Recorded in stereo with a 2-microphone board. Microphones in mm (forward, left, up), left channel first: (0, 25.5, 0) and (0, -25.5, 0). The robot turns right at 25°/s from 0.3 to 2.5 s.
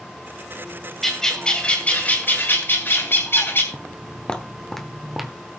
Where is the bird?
5° left, 3 m; by 3.6 s 45° left, 3 m.